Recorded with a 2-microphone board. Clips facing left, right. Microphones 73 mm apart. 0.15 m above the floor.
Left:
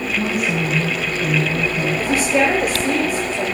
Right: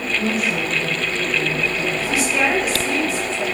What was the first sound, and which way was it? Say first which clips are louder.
A woman speaking: left 1 dB; 65° left (ahead or behind).